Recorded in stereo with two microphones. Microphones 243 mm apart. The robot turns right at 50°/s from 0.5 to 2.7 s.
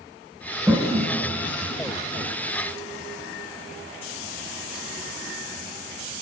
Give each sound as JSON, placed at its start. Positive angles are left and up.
{"t": 0.7, "sound": "a toilet flushing", "side_deg": -10, "distance_m": 1.3}